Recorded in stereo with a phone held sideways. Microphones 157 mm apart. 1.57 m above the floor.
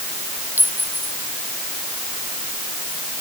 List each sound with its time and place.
0.6 s a clink: 10° right (ahead or behind)